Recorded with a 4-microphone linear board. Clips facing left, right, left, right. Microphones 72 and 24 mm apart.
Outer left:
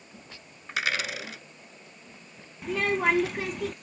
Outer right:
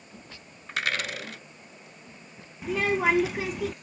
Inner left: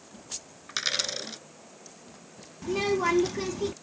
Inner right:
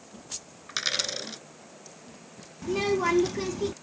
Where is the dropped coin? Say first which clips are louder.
Even, even; 5° left (ahead or behind).